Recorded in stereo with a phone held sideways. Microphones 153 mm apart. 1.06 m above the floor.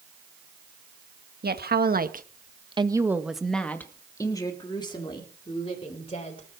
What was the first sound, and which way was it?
A woman speaking, 75° right (ahead or behind).